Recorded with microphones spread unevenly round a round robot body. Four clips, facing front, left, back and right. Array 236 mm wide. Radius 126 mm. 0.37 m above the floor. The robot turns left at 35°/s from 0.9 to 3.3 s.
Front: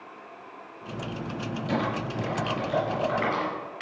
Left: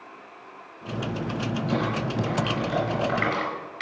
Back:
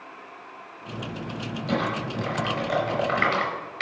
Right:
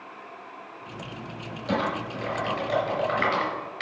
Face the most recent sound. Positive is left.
turn(degrees=-170)